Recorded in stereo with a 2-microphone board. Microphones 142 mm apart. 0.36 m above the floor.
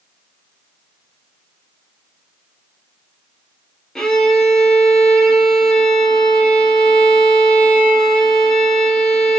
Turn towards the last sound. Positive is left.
turn(degrees=5)  # may be behind; listen again after turning